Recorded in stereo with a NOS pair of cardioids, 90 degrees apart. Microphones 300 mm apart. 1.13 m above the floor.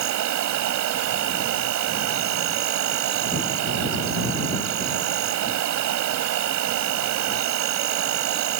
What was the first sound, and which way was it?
An insect, 70° right.